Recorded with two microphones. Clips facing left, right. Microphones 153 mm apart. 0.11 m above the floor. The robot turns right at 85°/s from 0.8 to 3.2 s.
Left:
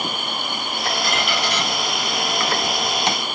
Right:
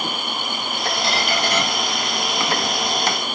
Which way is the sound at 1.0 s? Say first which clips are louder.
Right 3 dB; 25° right (ahead or behind).